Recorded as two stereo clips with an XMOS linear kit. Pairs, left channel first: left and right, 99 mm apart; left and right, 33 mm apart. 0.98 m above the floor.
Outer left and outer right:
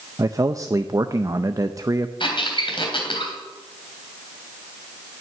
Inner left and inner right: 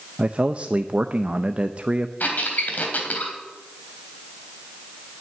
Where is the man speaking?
35° right (ahead or behind), 0.6 m.